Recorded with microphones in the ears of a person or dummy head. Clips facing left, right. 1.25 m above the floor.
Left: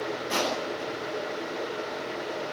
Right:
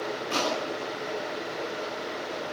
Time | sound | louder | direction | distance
0.3 | crushing | right 1 dB | 85° left | 10 m